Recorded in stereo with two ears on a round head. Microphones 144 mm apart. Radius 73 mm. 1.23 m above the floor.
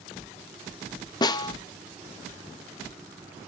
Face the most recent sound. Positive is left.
turn(degrees=25)  # may be behind; listen again after turning